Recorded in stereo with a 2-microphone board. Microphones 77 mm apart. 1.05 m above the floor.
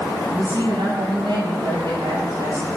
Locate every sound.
0.3 s a woman speaking: 75° right (ahead or behind), 6.5 m